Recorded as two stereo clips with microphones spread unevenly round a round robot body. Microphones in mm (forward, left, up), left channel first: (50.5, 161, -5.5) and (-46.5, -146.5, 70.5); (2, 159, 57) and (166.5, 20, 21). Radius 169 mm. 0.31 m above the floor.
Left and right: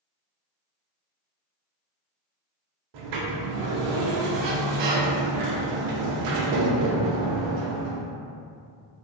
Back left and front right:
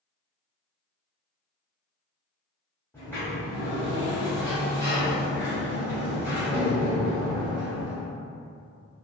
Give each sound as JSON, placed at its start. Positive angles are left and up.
{"t": 2.9, "sound": "a sliding door", "azimuth_deg": -135, "distance_m": 0.5}